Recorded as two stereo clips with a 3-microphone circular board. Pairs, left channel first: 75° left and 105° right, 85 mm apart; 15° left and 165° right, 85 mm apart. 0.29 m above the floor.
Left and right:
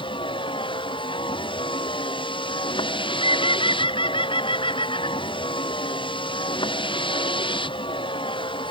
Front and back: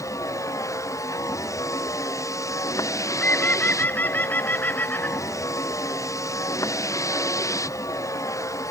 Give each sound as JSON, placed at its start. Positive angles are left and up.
{"t": 0.0, "sound": "a vehicle", "azimuth_deg": 65}
{"t": 2.9, "sound": "a bird", "azimuth_deg": 85}